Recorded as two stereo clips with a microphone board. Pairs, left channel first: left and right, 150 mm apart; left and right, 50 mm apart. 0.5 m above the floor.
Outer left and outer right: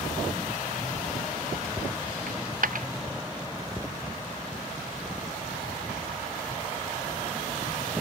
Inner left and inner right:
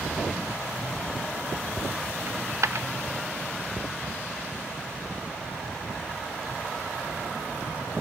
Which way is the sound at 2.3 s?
65° right (ahead or behind).